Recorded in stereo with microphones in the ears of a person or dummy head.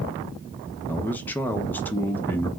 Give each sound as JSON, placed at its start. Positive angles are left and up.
{"t": 0.9, "sound": "a man speaking", "side_deg": 10, "distance_m": 0.6}